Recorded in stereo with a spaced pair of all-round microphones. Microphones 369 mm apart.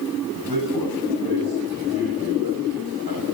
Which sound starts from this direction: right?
A man speaking, at 0.3 s.